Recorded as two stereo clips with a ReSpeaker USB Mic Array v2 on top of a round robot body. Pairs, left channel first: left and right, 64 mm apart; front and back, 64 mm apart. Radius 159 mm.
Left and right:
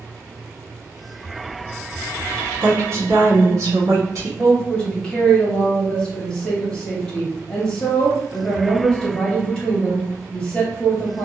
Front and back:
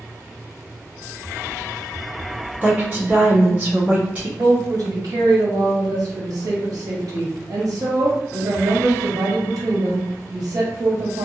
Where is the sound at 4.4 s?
170° left, 1.5 m.